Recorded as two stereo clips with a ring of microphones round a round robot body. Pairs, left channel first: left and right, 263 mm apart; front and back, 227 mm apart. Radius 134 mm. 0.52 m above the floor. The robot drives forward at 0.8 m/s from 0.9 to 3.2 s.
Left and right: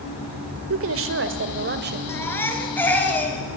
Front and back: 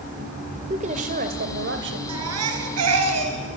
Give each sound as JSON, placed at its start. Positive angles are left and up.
{"t": 0.7, "sound": "a woman speaking", "azimuth_deg": -120, "distance_m": 1.8}
{"t": 2.1, "sound": "a baby crying", "azimuth_deg": 170, "distance_m": 2.0}